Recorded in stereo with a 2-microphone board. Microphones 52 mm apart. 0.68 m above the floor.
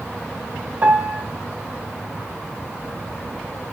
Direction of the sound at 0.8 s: 30° right (ahead or behind).